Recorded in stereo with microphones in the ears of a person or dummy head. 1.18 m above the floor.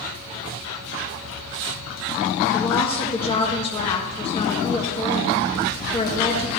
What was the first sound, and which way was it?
A woman speaking, 30° left (ahead or behind).